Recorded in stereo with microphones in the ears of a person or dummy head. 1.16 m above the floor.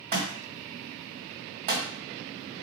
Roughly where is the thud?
Right.